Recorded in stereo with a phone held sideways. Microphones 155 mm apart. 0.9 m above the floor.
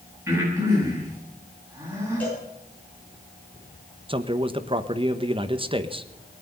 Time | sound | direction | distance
0.3 | breathing | 15° right (ahead or behind) | 8 m
2.2 | a cowbell | 10° left (ahead or behind) | 10 m
4.1 | a man speaking | 35° right (ahead or behind) | 1.0 m